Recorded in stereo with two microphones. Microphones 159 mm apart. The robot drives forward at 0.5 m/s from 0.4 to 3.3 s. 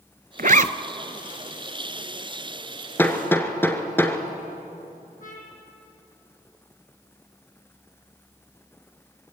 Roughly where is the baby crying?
I don't hear a baby crying.